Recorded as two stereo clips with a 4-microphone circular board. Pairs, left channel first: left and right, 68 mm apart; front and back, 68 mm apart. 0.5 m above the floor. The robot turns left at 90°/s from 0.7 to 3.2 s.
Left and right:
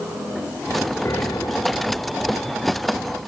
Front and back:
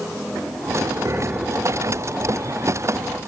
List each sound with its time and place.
1.1 s a piano: 140° left; by 2.0 s 50° left